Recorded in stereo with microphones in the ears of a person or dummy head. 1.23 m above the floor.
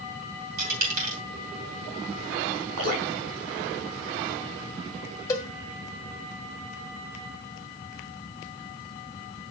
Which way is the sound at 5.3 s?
25° left (ahead or behind).